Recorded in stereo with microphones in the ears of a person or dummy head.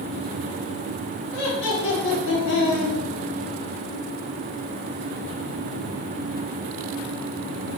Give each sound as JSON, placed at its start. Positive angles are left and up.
{"t": 1.3, "sound": "laughter", "side_deg": 65, "distance_m": 1.5}